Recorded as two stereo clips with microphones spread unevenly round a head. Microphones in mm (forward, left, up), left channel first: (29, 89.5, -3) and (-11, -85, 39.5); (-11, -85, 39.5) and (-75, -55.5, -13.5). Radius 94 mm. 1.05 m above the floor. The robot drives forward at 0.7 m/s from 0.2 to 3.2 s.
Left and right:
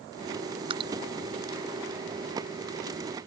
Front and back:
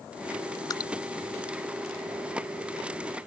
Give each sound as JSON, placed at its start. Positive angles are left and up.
{"t": 0.7, "sound": "dripping", "azimuth_deg": -45}